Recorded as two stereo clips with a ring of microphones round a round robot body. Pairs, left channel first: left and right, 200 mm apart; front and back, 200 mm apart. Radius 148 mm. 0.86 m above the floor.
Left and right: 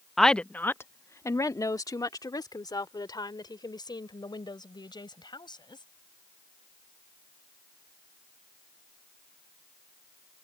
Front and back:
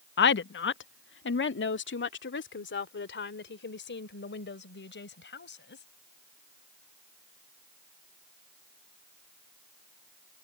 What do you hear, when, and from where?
0.2 s a woman speaking: straight ahead; by 5.8 s 25° left